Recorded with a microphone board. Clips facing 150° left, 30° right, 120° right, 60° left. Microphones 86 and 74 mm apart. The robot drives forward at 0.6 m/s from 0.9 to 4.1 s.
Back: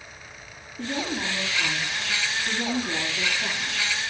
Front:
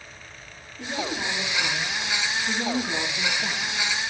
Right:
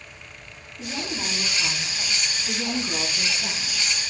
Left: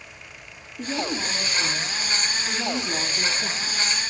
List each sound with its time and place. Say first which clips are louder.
0.8 s a woman speaking: back 1 dB, left 4 dB; 100° left, 6.5 m; by 3.8 s 115° left, 7.5 m